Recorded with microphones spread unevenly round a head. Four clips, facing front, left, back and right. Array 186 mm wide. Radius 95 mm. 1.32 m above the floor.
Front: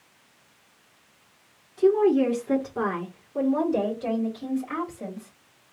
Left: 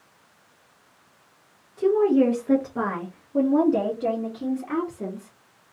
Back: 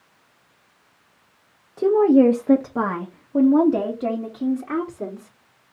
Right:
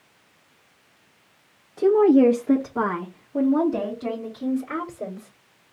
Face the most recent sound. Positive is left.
turn(degrees=160)